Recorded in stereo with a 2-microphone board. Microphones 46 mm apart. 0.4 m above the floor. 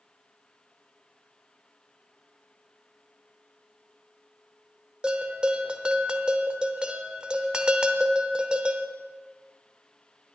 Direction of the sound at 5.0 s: 20° right (ahead or behind).